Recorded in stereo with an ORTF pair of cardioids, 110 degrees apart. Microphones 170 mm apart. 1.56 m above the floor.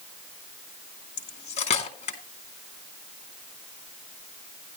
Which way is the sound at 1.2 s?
40° left.